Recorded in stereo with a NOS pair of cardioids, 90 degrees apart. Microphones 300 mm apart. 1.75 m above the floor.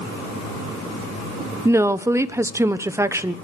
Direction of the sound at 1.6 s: 10° right.